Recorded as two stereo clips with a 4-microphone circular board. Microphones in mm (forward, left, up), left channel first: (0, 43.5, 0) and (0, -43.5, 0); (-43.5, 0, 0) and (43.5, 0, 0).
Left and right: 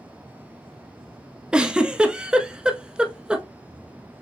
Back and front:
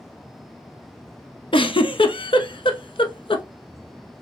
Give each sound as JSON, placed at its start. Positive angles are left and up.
{"t": 1.5, "sound": "a giggle", "azimuth_deg": -170, "distance_m": 0.6}